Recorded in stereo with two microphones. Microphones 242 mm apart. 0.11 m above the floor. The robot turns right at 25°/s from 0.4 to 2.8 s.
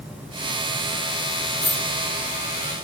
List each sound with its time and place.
1.6 s a dropped coin: 30° left (ahead or behind), 1.0 m; by 1.9 s 35° left (ahead or behind), 1.0 m